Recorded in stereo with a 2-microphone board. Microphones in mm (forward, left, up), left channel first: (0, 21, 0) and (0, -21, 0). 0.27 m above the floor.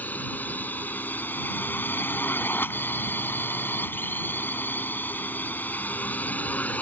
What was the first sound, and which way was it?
A drone, 45° left (ahead or behind).